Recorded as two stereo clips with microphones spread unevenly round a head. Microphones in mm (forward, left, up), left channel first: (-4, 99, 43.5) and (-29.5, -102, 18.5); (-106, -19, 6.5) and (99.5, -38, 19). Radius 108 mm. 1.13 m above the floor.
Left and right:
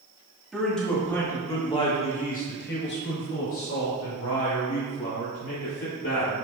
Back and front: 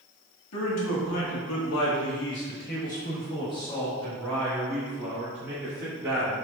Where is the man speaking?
175° left, 2.5 m; by 6.3 s 75° left, 4 m.